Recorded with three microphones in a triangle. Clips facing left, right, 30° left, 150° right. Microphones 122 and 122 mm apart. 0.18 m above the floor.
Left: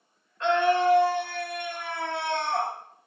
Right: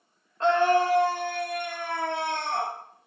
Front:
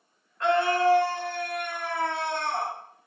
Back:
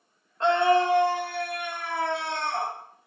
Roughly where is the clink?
No clink in this recording.